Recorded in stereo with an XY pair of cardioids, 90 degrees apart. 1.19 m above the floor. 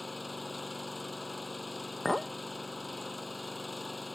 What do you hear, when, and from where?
0.0 s an engine running: 10° left
2.0 s a clink: 5° left